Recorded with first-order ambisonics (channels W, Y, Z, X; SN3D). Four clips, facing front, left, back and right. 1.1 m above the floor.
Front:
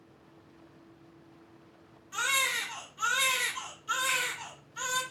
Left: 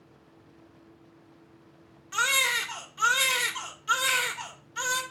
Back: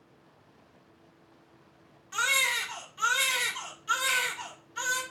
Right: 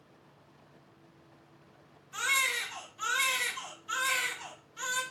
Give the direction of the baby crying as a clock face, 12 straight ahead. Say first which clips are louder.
Left 4 dB, back 3 dB; 8 o'clock.